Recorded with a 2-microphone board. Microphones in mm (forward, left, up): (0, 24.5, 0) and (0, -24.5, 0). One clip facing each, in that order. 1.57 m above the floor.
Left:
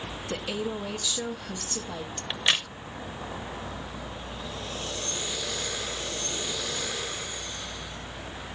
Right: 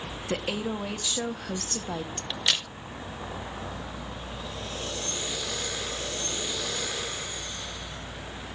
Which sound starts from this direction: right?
A woman speaking, at 0.3 s.